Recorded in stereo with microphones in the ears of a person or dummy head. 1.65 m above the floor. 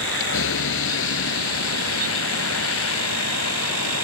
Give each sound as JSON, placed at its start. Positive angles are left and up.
{"t": 0.0, "sound": "a vehicle", "side_deg": 70}